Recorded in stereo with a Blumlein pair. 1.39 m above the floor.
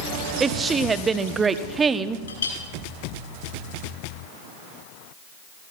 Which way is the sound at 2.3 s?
65° left.